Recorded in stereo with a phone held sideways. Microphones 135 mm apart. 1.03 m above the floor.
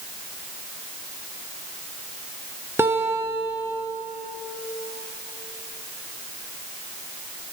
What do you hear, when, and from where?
2.8 s a guitar: 15° right (ahead or behind), 0.7 m